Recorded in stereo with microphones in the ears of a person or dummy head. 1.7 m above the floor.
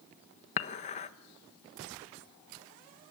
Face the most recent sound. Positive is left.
turn(degrees=40)  # may be behind; listen again after turning